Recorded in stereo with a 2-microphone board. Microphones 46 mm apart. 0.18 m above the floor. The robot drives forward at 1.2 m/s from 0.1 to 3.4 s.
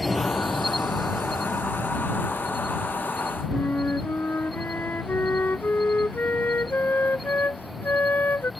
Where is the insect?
Centre (ahead or behind).